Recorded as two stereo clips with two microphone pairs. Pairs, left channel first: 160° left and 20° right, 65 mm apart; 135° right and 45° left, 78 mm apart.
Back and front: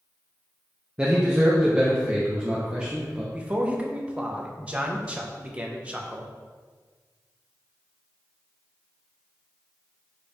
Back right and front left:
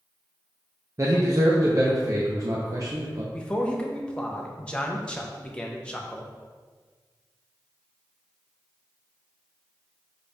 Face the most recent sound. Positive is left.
turn(degrees=-70)